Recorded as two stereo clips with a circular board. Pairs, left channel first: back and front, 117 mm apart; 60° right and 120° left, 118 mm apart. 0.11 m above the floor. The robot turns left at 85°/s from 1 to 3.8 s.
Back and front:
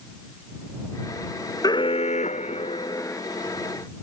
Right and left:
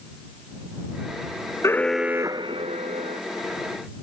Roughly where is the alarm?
Behind right.